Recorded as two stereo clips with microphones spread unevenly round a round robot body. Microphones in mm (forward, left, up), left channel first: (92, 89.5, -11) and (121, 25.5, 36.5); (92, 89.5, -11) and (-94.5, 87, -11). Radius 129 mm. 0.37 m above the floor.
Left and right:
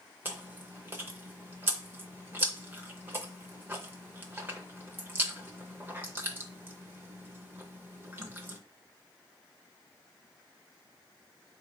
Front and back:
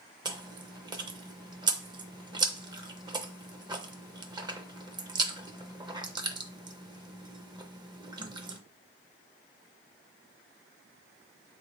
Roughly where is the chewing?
Behind.